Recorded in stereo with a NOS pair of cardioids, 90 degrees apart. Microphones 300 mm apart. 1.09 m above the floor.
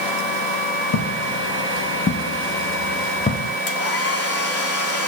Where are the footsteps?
65° left, 3.5 m; by 3.5 s 15° left, 3 m.